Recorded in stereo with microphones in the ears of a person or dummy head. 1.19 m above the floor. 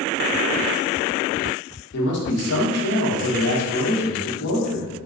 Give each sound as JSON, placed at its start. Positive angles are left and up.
{"t": 1.9, "sound": "a man speaking", "side_deg": 55, "distance_m": 1.0}